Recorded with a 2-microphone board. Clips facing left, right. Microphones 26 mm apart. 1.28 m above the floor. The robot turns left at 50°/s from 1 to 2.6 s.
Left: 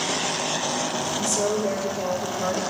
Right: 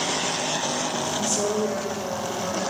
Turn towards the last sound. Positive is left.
turn(degrees=130)